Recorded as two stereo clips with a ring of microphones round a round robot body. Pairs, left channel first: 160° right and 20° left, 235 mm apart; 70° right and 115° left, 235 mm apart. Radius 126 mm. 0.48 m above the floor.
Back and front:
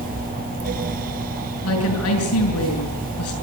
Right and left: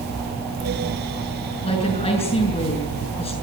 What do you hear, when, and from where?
1.6 s a woman speaking: 135° right, 6 m